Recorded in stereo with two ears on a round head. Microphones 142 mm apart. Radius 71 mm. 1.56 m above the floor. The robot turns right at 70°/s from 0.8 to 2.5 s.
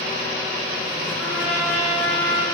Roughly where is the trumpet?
Behind.